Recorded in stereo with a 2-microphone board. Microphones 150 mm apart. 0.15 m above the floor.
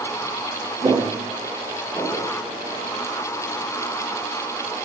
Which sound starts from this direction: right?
Footsteps, at 0.8 s.